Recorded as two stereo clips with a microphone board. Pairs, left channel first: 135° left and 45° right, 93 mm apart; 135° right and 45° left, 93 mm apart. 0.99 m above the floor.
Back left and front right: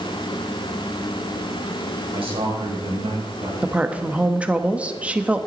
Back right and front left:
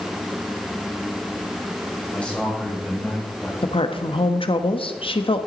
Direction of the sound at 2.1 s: 60° right.